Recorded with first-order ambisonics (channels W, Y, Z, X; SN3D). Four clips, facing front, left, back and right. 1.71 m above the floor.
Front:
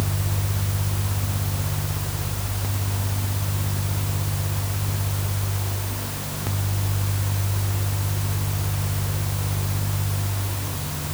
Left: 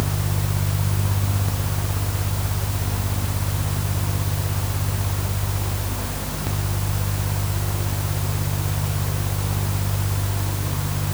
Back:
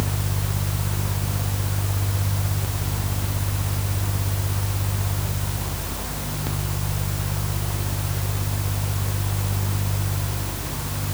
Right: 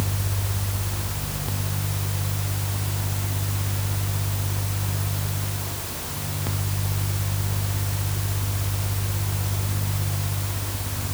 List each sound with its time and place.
Only background noise.